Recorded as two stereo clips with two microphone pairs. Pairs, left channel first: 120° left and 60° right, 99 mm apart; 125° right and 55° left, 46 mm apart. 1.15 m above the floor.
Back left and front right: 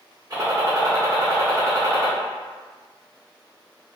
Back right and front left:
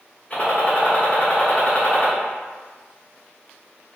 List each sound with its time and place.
0.3 s a gunshot: 80° right, 0.9 m